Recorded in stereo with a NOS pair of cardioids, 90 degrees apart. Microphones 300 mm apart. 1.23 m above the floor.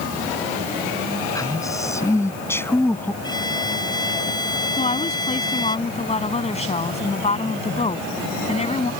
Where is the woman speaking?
20° left.